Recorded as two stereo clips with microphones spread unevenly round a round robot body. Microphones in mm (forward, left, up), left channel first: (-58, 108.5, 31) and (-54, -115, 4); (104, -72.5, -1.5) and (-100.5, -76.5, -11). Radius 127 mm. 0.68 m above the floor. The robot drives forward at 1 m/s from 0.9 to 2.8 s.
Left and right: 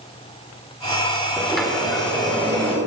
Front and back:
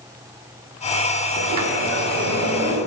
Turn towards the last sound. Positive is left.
turn(degrees=180)